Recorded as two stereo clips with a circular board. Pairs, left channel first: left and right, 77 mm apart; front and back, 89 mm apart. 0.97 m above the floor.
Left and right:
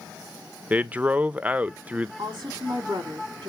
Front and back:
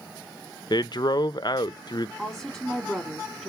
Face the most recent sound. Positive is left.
turn(degrees=-90)